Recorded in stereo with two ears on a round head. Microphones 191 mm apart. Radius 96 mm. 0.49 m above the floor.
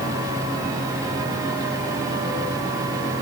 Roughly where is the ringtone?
No ringtone in this recording.